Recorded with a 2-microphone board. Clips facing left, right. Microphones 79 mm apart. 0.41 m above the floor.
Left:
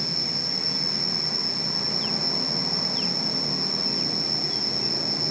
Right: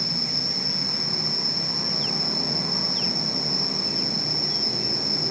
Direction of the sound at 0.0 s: 25° left (ahead or behind).